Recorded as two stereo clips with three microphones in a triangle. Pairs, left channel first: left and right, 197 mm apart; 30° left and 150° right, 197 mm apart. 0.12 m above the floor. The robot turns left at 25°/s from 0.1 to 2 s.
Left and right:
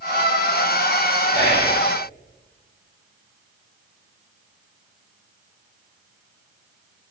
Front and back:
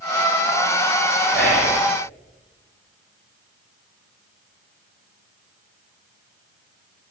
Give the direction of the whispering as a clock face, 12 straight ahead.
8 o'clock.